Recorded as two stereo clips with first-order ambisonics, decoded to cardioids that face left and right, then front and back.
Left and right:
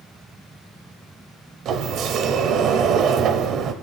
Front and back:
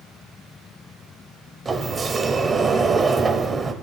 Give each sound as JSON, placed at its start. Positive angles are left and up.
{"t": 1.6, "sound": "a sliding door", "azimuth_deg": -110, "distance_m": 0.7}